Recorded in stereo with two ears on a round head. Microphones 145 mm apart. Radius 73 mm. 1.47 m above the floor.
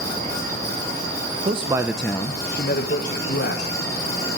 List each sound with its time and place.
1.4 s a man speaking: 40° right (ahead or behind), 1.0 m; by 3.9 s 75° left (ahead or behind), 2.5 m